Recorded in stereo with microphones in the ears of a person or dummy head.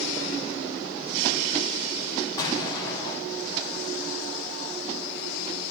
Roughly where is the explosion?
Left.